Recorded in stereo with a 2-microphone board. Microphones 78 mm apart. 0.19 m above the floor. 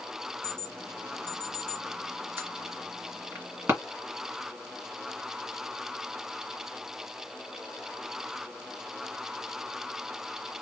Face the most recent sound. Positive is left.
turn(degrees=-25)  # may be behind; listen again after turning